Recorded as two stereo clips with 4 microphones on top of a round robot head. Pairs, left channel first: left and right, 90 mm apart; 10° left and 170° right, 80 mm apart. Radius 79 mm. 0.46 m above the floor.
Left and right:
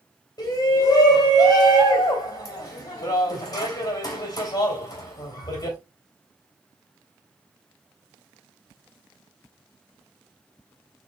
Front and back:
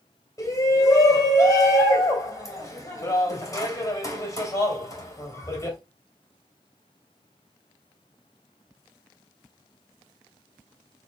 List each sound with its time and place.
0.4 s a shout: 55° left, 2.5 m